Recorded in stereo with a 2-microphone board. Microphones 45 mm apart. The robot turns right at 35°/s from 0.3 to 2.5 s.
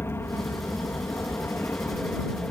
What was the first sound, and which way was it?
An aircraft, 70° left.